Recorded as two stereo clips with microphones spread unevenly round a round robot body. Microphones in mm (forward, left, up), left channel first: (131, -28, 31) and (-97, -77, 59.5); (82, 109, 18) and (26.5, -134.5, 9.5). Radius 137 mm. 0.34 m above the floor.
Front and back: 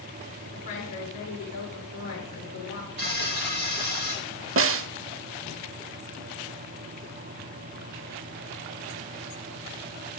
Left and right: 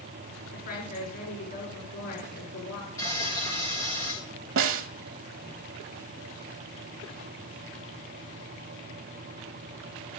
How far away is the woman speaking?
About 4 m.